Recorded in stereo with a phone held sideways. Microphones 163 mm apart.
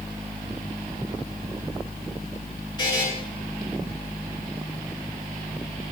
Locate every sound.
2.8 s a buzzer: 25° left (ahead or behind), 7.5 m